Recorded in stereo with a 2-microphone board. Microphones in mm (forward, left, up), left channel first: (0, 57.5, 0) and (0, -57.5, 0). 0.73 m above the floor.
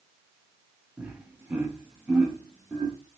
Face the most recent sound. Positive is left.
turn(degrees=-5)  # may be behind; listen again after turning